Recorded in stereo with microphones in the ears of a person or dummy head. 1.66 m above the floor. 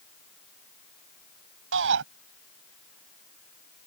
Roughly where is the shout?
Right.